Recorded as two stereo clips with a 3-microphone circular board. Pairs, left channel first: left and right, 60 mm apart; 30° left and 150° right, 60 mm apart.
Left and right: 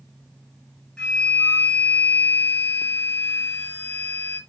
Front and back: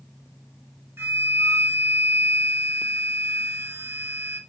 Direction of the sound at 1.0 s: 170° left.